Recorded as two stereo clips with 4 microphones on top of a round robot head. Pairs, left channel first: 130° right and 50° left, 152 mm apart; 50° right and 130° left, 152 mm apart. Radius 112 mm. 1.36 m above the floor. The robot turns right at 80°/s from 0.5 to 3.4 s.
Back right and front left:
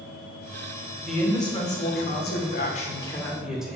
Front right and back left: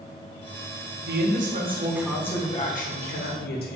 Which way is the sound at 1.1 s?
135° left.